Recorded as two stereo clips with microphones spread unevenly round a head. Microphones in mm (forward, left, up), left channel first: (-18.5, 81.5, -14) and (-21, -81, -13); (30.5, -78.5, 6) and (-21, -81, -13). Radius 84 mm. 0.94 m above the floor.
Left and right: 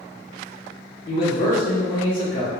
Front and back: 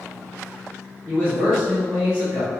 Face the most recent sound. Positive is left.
turn(degrees=70)